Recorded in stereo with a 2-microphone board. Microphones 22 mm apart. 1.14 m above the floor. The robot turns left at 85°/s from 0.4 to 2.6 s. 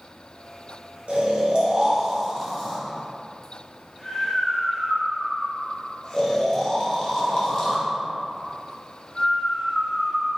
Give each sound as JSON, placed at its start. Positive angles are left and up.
{"t": 1.1, "sound": "snoring", "side_deg": -75, "distance_m": 1.7}